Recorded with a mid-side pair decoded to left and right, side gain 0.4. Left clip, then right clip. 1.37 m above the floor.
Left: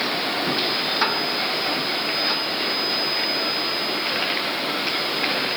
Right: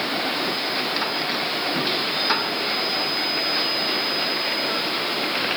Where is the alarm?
No alarm in this recording.